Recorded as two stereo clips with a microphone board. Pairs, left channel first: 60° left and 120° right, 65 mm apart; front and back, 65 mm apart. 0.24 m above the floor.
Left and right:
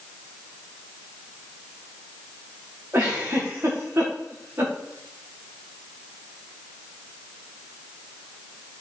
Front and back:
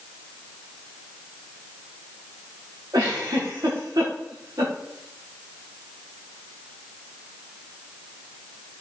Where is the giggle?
170° right, 5.5 m.